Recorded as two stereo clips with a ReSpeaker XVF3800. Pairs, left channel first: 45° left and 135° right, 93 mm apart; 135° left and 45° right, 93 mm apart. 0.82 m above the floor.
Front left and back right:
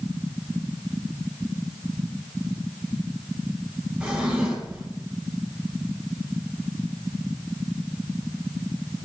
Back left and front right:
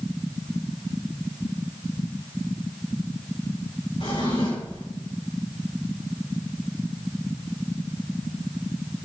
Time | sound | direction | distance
4.0 | a drawer | 145° left | 6.5 m